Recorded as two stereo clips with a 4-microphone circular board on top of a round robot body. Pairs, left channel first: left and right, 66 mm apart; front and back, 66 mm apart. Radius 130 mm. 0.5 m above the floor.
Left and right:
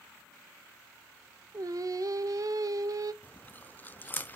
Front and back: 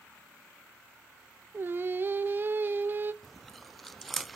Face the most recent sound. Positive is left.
turn(degrees=85)